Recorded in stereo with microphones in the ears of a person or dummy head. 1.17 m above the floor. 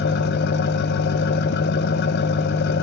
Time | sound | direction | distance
0.0 | an engine running | 50° left (ahead or behind) | 0.9 m